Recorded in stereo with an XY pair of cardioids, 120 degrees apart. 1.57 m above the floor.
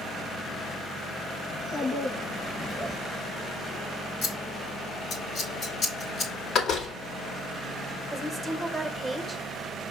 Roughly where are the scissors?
Ahead left.